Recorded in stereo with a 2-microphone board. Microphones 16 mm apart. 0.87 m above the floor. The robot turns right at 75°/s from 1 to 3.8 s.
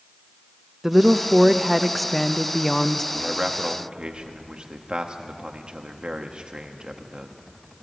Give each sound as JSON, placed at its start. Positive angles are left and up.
{"t": 0.8, "sound": "a woman speaking", "side_deg": -20, "distance_m": 0.6}
{"t": 3.1, "sound": "a man speaking", "side_deg": -25, "distance_m": 1.3}